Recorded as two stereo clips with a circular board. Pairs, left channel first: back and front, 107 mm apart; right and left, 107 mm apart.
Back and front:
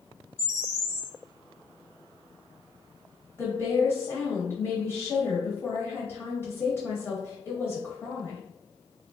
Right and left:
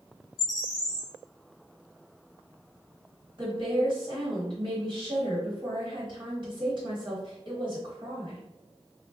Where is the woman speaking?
115° left, 1.4 m.